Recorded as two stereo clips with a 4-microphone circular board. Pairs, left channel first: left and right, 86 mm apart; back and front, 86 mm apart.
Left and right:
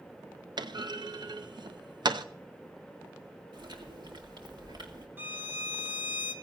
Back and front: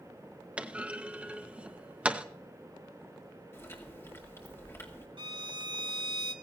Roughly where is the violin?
Ahead right.